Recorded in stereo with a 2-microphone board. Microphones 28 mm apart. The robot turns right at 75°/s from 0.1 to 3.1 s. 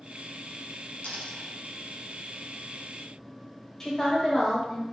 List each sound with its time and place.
1.0 s a dropped coin: 60° left (ahead or behind), 0.8 m; by 1.5 s 80° left, 0.8 m
3.8 s a woman speaking: 20° left (ahead or behind), 0.9 m